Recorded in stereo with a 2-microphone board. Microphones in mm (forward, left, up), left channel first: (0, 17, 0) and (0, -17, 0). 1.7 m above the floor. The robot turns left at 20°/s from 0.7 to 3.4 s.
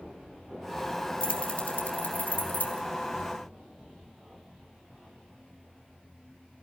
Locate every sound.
1.2 s keys jangling: 40° left (ahead or behind), 2.5 m; by 2.8 s 70° left (ahead or behind), 2.5 m